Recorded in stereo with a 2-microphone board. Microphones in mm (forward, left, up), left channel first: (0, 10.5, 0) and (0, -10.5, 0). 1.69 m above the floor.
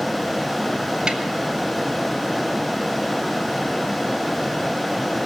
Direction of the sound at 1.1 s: 35° right (ahead or behind).